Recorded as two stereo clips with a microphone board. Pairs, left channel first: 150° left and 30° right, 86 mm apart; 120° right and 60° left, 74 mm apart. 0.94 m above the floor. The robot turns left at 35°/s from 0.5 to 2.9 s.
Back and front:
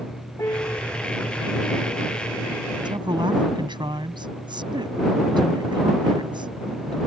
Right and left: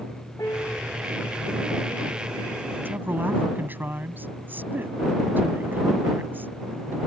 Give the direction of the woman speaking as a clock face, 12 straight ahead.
12 o'clock.